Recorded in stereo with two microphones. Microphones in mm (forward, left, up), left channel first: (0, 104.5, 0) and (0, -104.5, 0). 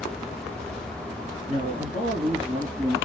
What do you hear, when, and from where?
1.5 s a man speaking: 45° right (ahead or behind), 2.0 m; by 3.0 s 30° right (ahead or behind), 2.5 m